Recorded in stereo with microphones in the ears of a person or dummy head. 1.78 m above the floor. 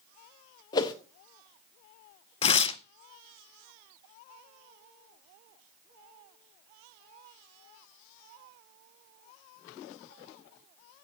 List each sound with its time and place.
0.7 s a whoosh: 25° left (ahead or behind), 1.1 m
2.4 s tearing paper: 30° left (ahead or behind), 0.6 m